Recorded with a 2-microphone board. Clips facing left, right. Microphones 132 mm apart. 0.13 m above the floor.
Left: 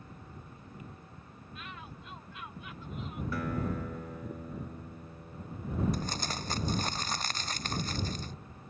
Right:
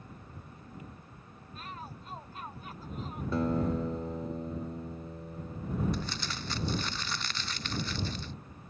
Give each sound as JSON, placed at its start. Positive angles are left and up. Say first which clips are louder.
{"t": 1.6, "sound": "a shout", "louder": "right 3 dB", "side_deg": -40}
{"t": 3.3, "sound": "a guitar", "louder": "right 6 dB", "side_deg": -25}
{"t": 5.9, "sound": "crumpling", "louder": "left 1 dB", "side_deg": 45}